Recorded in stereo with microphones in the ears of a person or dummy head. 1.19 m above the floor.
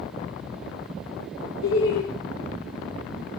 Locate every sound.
1.6 s laughter: 75° left (ahead or behind), 1.5 m